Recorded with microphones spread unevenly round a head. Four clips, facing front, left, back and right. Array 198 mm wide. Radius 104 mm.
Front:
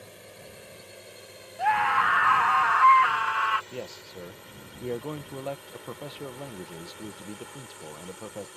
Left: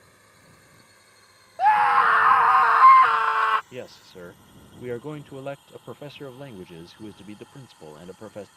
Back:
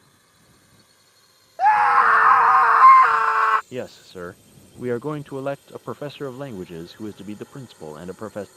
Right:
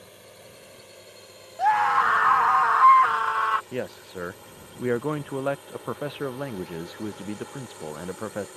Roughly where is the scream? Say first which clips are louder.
Left 3 dB, back 8 dB; behind.